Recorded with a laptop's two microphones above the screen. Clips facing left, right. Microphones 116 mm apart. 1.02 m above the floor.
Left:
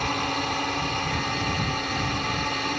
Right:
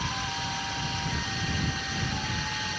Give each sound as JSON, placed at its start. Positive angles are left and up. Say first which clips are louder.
{"t": 0.0, "sound": "a drone", "louder": "left 7 dB", "side_deg": 65}